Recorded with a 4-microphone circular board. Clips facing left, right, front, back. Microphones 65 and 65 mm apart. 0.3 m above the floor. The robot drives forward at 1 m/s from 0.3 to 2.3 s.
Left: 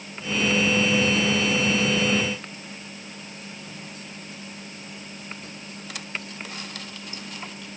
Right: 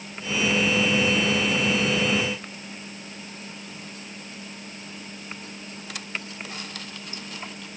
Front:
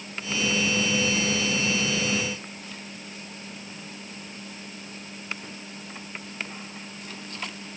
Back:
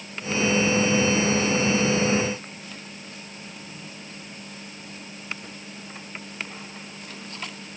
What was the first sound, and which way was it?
Only background noise.